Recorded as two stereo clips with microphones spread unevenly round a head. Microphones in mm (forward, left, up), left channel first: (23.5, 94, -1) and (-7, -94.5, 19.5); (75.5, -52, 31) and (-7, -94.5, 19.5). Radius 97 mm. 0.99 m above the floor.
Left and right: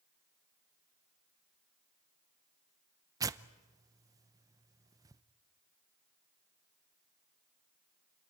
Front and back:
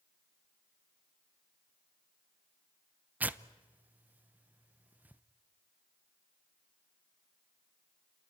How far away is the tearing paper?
About 0.7 m.